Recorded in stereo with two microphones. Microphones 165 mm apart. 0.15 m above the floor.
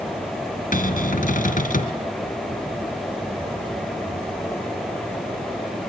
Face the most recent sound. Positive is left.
turn(degrees=55)  # may be behind; listen again after turning